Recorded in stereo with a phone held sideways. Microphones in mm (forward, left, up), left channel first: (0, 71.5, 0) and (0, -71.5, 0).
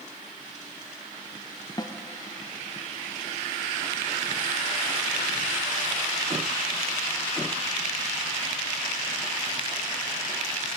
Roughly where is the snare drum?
Left.